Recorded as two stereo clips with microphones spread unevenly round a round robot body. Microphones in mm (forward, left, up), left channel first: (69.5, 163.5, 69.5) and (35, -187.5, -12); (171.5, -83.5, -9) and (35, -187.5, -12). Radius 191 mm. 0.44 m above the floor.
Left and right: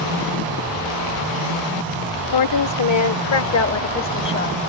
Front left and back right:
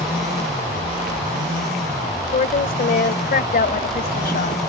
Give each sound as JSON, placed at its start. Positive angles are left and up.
{"t": 2.3, "sound": "a woman speaking", "azimuth_deg": 65}